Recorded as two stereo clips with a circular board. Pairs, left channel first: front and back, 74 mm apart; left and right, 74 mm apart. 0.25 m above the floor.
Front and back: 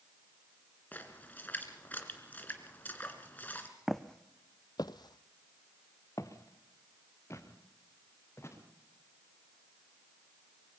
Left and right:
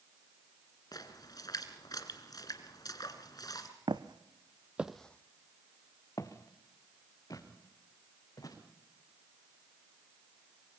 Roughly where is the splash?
Ahead left.